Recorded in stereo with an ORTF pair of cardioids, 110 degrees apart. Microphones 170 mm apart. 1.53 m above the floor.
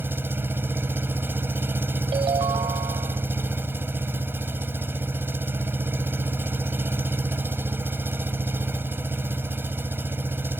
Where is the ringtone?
35° right.